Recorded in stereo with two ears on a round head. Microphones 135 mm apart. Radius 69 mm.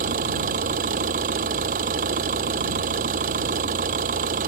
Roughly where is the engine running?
Right.